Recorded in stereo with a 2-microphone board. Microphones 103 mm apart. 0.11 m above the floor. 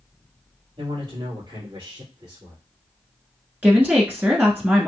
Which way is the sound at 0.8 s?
55° right (ahead or behind).